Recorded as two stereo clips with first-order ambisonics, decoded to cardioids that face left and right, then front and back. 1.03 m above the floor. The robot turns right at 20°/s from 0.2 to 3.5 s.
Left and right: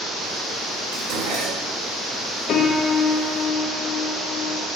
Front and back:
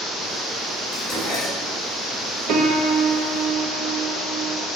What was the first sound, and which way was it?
Dishes clattering, 85° right.